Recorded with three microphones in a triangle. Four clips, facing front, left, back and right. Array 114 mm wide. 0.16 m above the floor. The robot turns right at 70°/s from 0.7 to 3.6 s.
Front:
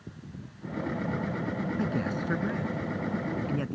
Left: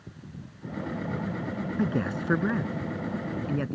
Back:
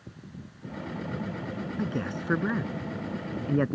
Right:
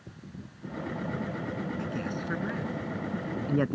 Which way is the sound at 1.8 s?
85° left.